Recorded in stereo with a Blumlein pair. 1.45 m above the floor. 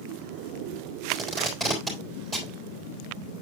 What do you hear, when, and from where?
1.1 s tape being pulled: straight ahead, 3.5 m